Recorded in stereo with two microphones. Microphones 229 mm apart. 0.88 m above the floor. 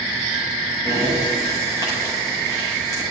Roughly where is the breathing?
Centre.